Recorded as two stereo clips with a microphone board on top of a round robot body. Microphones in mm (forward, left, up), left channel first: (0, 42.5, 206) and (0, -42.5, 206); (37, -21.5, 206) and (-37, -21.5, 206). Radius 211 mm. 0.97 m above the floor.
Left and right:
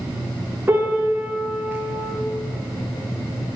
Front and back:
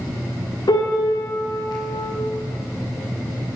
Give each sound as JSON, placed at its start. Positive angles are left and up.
{"t": 0.7, "sound": "a piano", "azimuth_deg": -25, "distance_m": 1.9}